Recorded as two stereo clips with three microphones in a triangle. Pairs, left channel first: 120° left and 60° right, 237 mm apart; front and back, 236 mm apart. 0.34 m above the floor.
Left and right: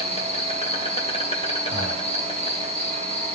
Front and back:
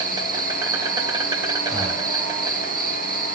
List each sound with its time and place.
0.0 s an insect: 130° left, 2.0 m
1.7 s breathing: 90° right, 5.5 m